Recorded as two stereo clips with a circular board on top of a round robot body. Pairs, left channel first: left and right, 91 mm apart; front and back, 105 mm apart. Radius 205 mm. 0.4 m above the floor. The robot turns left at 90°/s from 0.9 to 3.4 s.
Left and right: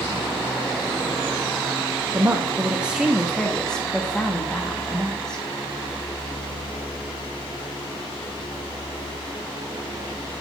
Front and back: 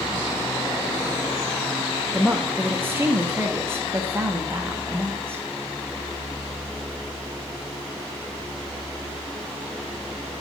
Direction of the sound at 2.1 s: 85° right.